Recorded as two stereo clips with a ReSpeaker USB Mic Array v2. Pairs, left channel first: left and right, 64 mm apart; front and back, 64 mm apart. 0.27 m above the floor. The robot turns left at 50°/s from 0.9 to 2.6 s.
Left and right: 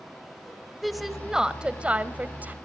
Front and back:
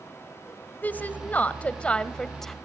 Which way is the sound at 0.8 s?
Straight ahead.